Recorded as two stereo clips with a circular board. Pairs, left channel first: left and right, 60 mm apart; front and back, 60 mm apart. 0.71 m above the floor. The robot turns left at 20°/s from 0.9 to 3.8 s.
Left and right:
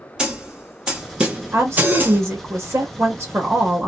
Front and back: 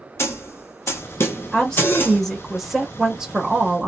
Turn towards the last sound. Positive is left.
turn(degrees=-120)